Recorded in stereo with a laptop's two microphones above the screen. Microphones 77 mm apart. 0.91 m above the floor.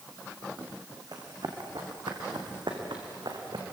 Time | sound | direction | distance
1.1 | running footsteps | 60° right (ahead or behind) | 4 m